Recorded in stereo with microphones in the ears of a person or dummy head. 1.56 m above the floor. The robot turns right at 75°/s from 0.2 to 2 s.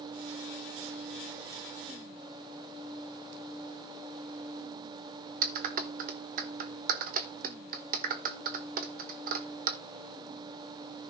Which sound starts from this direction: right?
A clap, at 5.4 s.